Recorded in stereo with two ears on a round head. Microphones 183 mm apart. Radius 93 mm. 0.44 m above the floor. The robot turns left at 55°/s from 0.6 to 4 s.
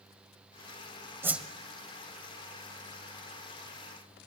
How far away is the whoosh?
About 1.4 m.